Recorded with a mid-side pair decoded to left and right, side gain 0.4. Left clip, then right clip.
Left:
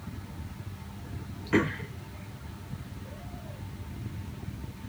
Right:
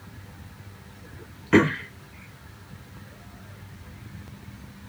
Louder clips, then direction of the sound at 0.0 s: Left 2 dB; 50° left.